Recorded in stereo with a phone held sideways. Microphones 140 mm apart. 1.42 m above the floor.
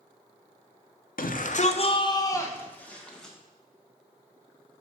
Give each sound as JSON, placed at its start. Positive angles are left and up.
{"t": 1.2, "sound": "a shout", "side_deg": 80, "distance_m": 0.7}